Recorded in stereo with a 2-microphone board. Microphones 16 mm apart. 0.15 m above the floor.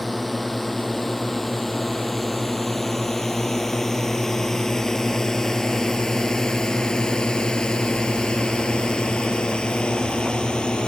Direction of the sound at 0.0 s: 10° left (ahead or behind).